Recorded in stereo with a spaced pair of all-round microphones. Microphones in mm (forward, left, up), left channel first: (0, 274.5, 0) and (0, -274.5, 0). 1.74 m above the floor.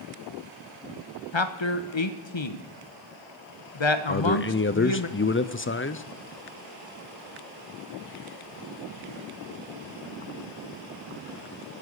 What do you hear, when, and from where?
1.3 s a man speaking: 50° left (ahead or behind), 1.1 m
4.1 s a man speaking: 25° left (ahead or behind), 0.5 m